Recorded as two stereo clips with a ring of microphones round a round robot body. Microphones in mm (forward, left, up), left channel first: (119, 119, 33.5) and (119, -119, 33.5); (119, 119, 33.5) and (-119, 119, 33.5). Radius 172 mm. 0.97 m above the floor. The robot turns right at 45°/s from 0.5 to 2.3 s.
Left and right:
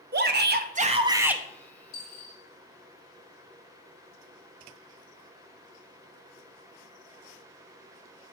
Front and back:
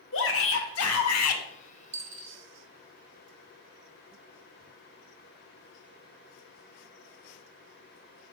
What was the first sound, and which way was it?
A shout, 45° right.